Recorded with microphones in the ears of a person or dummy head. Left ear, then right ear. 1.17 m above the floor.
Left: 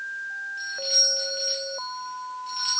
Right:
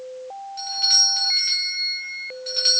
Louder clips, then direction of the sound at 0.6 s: Right 5 dB; 45° right (ahead or behind).